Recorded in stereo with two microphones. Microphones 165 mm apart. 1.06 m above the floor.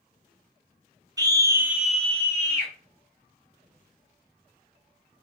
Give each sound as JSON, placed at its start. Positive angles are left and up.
{"t": 1.2, "sound": "a scream", "side_deg": -25, "distance_m": 0.7}